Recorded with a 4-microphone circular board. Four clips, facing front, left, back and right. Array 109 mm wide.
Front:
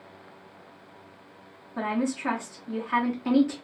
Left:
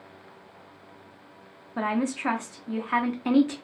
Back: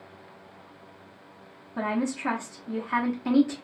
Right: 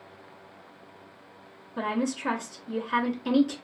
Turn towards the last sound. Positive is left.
turn(degrees=85)